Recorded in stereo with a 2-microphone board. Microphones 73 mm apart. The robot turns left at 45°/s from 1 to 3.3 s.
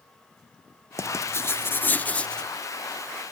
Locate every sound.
1.0 s writing: 80° left, 0.5 m; by 2.5 s 15° left, 0.5 m